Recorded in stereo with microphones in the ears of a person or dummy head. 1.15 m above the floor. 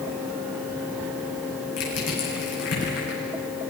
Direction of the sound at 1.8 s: 70° left (ahead or behind).